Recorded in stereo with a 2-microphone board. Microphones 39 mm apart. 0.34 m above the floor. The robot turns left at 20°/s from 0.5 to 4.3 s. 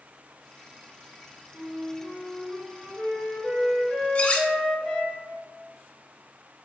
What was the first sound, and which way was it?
A flute, 15° right (ahead or behind).